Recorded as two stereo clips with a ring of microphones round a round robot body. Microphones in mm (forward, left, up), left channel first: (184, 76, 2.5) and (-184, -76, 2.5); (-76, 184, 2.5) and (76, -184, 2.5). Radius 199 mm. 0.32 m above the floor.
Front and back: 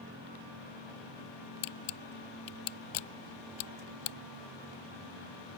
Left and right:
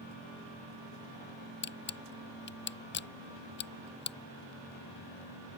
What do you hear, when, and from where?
1.6 s a camera shutter: 50° left